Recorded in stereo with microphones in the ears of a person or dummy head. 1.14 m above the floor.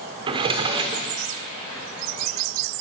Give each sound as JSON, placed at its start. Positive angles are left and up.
{"t": 0.3, "sound": "a drawer", "side_deg": -30, "distance_m": 1.2}